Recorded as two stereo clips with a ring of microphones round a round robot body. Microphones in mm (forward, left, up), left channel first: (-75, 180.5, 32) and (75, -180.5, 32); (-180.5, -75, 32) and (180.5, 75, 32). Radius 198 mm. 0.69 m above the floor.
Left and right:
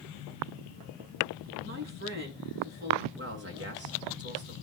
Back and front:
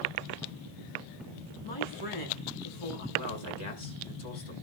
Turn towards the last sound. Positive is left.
turn(degrees=-130)